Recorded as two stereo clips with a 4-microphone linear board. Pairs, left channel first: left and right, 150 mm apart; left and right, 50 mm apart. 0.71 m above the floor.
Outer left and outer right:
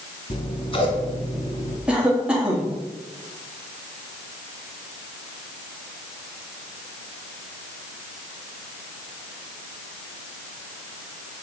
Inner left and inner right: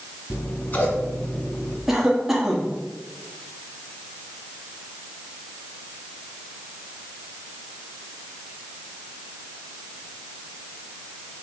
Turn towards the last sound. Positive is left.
turn(degrees=-5)  # may be behind; listen again after turning